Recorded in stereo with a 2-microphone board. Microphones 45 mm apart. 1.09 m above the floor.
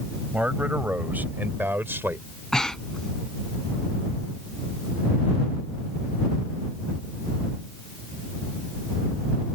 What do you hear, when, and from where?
0.3 s a man speaking: 30° right (ahead or behind); by 2.3 s 55° right (ahead or behind)
2.5 s breathing: 15° left (ahead or behind)